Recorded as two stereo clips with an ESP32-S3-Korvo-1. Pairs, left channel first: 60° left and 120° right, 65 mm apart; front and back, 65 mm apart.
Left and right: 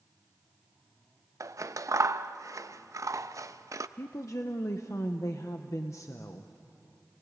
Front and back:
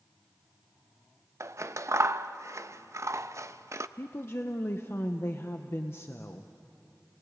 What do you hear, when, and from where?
1.4 s scissors: 145° right, 0.6 m
4.0 s a woman speaking: 40° left, 0.8 m